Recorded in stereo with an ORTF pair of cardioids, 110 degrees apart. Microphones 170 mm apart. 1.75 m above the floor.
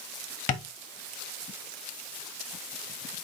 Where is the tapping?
50° left, 1.3 m.